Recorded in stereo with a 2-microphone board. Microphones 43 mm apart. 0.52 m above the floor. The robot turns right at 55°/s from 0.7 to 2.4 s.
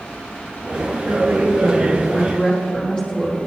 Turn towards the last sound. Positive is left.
turn(degrees=5)